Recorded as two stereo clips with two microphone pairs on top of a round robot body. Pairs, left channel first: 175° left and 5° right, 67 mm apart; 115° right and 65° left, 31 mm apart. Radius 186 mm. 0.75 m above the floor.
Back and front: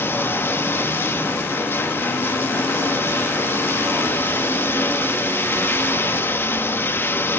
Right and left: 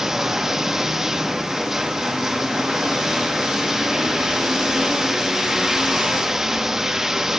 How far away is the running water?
About 1.2 m.